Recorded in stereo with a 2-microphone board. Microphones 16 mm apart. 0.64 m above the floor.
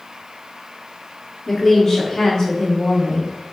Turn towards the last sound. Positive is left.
turn(degrees=65)  # may be behind; listen again after turning